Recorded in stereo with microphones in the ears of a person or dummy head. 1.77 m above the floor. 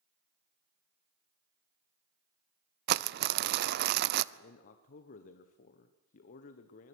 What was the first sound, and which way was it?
Crumpling, 65° right (ahead or behind).